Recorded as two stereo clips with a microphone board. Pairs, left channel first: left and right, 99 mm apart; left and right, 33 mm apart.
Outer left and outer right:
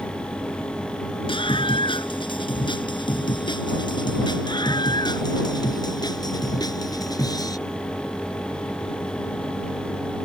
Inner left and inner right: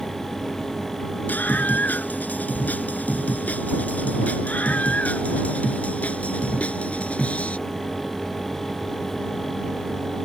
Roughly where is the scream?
Left.